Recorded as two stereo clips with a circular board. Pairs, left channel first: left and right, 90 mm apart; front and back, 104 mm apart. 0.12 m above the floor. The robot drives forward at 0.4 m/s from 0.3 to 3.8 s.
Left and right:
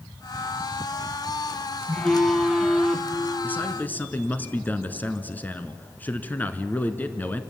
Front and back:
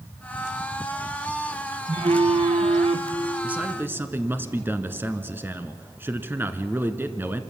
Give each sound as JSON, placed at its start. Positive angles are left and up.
{"t": 1.9, "sound": "a phone buzzing", "azimuth_deg": 170, "distance_m": 1.4}
{"t": 3.4, "sound": "a man speaking", "azimuth_deg": 120, "distance_m": 1.1}